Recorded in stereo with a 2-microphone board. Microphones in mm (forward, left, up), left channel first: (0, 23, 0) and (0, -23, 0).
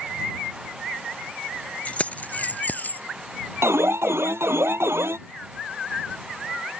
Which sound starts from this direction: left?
Keys jangling, at 1.9 s.